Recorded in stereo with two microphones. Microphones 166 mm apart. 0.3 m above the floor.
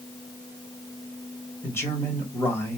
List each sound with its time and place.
1.6 s a man speaking: 15° left (ahead or behind), 1.0 m